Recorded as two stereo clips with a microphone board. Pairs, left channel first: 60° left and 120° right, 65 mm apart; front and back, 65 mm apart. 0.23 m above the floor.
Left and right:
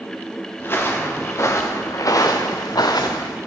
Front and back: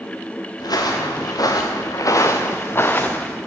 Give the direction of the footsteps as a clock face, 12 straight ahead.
12 o'clock.